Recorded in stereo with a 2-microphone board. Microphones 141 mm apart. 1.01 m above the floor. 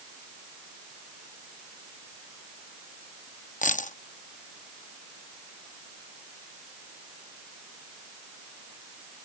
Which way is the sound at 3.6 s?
70° left (ahead or behind).